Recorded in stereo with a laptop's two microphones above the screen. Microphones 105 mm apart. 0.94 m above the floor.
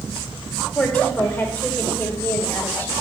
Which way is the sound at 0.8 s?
15° left (ahead or behind).